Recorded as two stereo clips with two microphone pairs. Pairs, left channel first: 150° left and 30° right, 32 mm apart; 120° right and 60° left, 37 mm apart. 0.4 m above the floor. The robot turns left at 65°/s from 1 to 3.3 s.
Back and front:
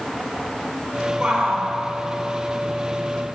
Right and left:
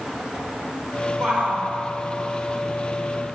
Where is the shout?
55° left, 1.5 m; by 1.7 s 25° left, 1.5 m.